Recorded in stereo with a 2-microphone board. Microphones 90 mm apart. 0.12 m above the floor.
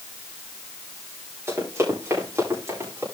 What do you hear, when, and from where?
1.5 s running footsteps: 30° right (ahead or behind), 10 m